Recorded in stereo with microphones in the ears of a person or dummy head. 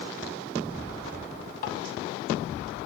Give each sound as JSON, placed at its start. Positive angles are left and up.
{"t": 1.6, "sound": "tapping", "side_deg": 55, "distance_m": 2.5}